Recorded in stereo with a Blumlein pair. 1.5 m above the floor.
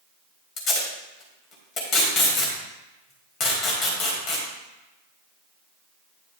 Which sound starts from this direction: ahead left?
Tape being pulled, at 0.6 s.